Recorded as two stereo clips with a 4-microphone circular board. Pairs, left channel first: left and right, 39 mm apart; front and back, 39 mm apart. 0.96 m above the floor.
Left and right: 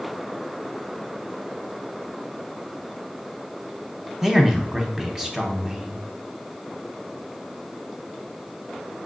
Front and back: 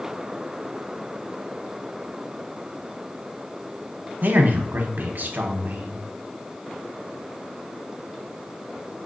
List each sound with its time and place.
4.2 s a man speaking: 165° right, 0.8 m